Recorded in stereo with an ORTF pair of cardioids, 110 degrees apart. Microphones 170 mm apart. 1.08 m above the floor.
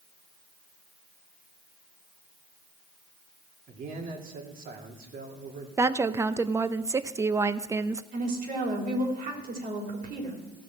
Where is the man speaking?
55° right, 2 m.